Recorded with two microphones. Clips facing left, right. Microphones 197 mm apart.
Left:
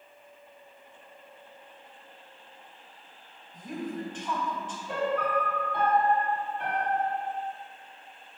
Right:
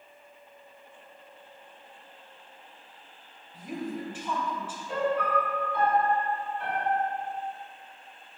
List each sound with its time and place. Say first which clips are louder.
3.5 s a woman speaking: even; 10° right (ahead or behind), 1.6 m
4.9 s a piano: right 1 dB; 65° left (ahead or behind), 1.9 m